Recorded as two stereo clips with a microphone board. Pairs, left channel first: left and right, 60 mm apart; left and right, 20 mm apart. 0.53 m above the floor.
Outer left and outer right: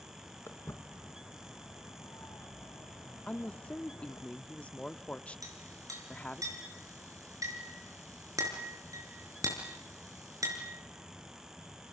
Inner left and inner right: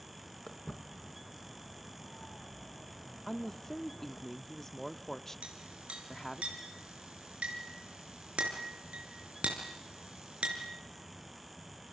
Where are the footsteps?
40° left (ahead or behind), 3 m; by 4.3 s 75° left (ahead or behind), 1.7 m.